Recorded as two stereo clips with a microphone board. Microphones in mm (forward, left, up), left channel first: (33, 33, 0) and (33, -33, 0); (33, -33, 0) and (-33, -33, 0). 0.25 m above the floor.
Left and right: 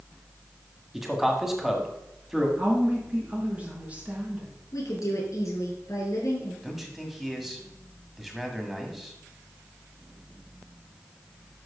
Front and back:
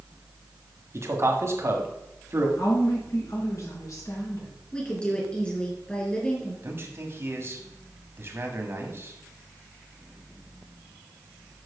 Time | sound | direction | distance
0.9 | a man speaking | 170° right | 1.7 m
2.6 | a woman speaking | 25° right | 4 m
4.7 | a woman speaking | 70° left | 4.5 m
6.6 | a man speaking | 175° right | 1.8 m